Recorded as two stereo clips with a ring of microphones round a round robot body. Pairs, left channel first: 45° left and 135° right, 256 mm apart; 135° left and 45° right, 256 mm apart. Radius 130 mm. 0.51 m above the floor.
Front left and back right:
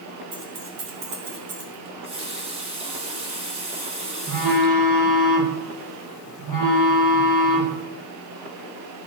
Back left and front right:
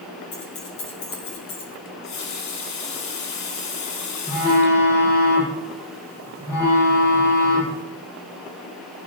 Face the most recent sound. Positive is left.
turn(degrees=-145)